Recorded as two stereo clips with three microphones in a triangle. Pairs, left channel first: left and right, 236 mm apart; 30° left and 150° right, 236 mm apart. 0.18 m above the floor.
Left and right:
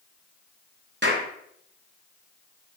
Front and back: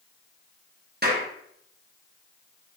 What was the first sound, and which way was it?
A clap, 115° right.